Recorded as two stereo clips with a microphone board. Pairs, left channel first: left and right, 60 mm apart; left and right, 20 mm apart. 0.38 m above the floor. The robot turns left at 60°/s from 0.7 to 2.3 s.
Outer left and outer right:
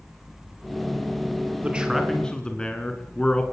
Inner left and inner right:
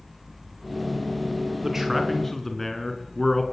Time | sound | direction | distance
1.6 | a man speaking | 155° right | 4 m